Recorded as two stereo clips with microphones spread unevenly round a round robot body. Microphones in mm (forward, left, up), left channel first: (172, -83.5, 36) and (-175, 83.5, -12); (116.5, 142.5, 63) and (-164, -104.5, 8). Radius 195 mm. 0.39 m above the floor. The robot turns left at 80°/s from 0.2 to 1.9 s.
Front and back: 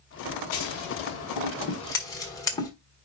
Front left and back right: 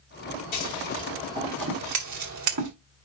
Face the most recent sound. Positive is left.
turn(degrees=-110)